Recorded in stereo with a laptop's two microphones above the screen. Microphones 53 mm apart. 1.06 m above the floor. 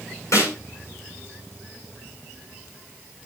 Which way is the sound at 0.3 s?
65° left (ahead or behind).